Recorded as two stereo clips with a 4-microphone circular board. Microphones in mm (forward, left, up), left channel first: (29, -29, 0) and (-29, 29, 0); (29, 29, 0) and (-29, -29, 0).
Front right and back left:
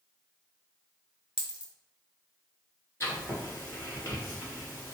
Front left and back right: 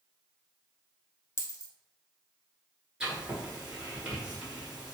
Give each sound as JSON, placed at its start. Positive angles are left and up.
{"t": 1.4, "sound": "a dropped coin", "azimuth_deg": 65, "distance_m": 0.8}
{"t": 3.0, "sound": "writing", "azimuth_deg": -65, "distance_m": 1.7}